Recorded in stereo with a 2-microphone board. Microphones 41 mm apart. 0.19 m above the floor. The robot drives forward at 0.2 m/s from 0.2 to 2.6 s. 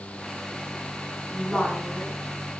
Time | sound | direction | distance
1.3 | a woman speaking | 20° left (ahead or behind) | 1.7 m